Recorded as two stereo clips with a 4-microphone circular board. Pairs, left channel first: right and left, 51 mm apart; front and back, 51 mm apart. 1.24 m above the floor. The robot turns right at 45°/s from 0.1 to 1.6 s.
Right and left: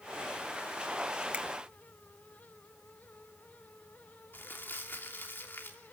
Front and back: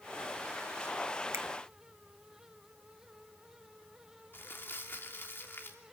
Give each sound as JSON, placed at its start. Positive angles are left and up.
{"t": 1.3, "sound": "a finger snap", "azimuth_deg": 155, "distance_m": 1.4}
{"t": 4.3, "sound": "crumpling", "azimuth_deg": -45, "distance_m": 3.0}